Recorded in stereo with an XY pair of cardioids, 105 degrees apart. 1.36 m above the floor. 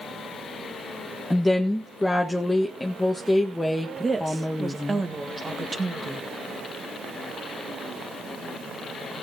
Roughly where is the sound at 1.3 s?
Ahead.